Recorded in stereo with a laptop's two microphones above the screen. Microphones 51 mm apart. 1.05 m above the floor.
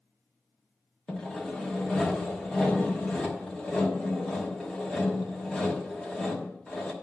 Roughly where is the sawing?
Centre.